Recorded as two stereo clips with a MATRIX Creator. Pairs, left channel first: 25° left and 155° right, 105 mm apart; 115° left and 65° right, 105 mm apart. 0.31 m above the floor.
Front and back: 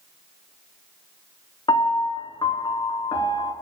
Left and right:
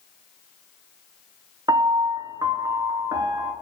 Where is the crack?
No crack in this recording.